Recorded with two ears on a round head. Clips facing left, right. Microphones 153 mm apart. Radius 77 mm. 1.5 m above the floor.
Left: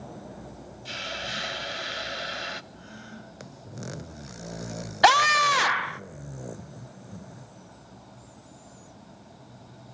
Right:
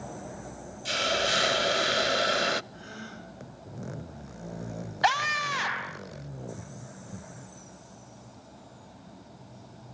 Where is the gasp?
80° right, 6 m.